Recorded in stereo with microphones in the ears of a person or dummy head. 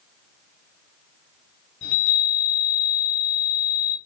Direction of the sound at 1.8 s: 70° left (ahead or behind).